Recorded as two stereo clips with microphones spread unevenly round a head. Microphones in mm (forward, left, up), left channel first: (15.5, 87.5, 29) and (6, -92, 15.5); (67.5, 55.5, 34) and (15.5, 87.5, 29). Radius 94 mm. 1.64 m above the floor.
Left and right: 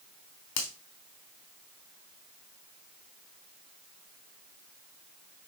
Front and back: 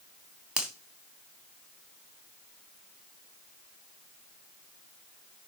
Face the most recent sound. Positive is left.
turn(degrees=70)